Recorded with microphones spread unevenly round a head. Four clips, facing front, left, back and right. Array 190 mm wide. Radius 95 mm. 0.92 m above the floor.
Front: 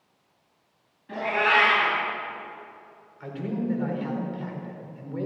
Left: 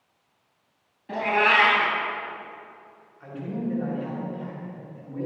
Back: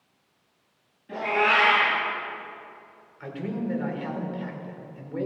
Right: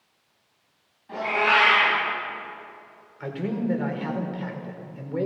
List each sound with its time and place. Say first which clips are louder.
1.1 s a cat meowing: left 1 dB, even; 85° left, 4 m
3.2 s a man speaking: right 3 dB, front 1 dB; 105° right, 4 m